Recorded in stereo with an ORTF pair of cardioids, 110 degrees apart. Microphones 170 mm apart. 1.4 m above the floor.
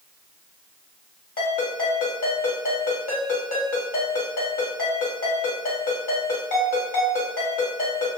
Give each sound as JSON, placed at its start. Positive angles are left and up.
{"t": 1.4, "sound": "a ringtone", "azimuth_deg": 50, "distance_m": 1.8}